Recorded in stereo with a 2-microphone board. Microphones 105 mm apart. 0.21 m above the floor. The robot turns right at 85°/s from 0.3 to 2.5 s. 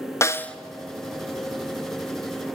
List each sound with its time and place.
0.2 s a snare drum: 25° left (ahead or behind), 0.6 m; by 0.6 s 5° left (ahead or behind), 0.6 m